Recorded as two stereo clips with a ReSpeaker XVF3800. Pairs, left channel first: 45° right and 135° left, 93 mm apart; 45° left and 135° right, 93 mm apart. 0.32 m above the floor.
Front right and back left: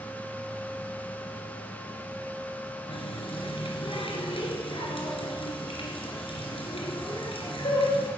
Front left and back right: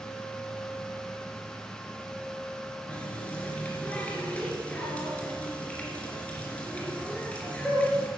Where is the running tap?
30° right, 3 m.